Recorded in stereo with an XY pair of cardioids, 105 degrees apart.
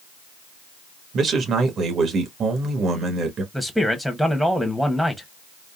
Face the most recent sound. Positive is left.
turn(degrees=-5)